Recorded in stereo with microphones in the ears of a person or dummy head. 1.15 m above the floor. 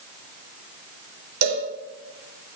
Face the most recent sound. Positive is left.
turn(degrees=-65)  # may be behind; listen again after turning